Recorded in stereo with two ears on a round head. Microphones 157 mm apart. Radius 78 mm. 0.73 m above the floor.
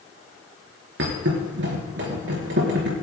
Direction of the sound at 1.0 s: 70° right (ahead or behind).